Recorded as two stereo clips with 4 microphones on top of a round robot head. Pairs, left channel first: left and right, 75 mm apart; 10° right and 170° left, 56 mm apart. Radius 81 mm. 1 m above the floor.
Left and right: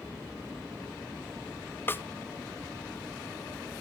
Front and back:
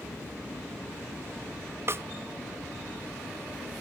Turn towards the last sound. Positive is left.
turn(degrees=145)